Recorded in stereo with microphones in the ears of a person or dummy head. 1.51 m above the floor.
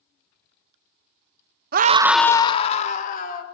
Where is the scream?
50° right (ahead or behind), 0.7 m; by 3.4 s 60° left (ahead or behind), 2 m.